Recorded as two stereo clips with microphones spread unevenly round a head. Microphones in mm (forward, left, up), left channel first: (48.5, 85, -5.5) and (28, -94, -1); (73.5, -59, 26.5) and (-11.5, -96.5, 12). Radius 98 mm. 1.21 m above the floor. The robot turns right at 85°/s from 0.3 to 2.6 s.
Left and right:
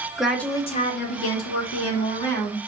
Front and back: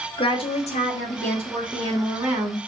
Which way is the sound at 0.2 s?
10° right.